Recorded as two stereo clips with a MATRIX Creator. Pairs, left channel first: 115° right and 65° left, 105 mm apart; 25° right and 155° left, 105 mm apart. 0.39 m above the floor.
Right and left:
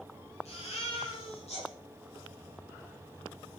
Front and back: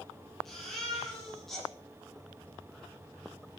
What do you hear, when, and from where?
0.5 s a baby crying: 110° right, 9 m